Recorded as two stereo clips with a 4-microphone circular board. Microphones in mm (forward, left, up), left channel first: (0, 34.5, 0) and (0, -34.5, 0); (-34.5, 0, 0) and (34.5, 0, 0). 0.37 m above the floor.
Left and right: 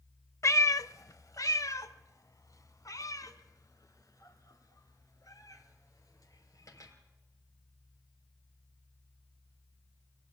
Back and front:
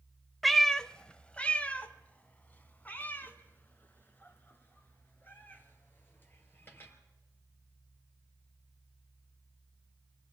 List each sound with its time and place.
0.4 s a cat meowing: 90° left, 0.5 m; by 6.9 s 120° left, 4 m